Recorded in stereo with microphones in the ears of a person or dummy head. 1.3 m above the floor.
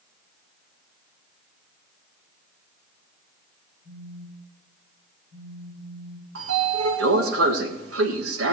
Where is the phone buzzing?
55° right (ahead or behind), 4.5 m.